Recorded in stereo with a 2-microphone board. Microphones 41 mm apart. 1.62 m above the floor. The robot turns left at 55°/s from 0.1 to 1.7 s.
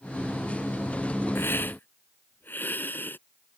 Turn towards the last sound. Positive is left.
turn(degrees=55)  # may be behind; listen again after turning